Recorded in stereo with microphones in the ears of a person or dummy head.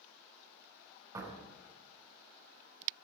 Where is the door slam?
20° right (ahead or behind), 5 m.